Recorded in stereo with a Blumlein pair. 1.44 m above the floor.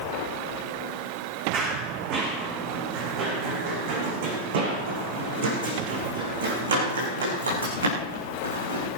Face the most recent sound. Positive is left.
turn(degrees=-75)